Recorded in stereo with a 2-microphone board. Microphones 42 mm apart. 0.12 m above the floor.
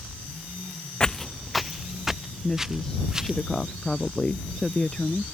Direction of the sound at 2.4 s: 15° left (ahead or behind).